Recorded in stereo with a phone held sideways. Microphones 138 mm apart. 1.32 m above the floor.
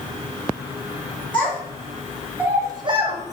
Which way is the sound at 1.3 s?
10° left (ahead or behind).